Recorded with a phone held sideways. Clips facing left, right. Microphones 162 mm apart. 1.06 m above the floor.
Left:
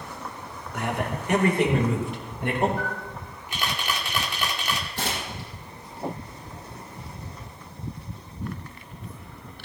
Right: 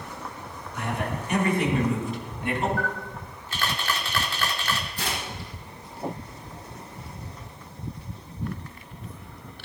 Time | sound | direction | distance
0.7 | a man speaking | 85° left | 4 m
2.8 | a camera shutter | 15° left (ahead or behind) | 2 m
5.0 | tearing paper | 70° left (ahead or behind) | 8.5 m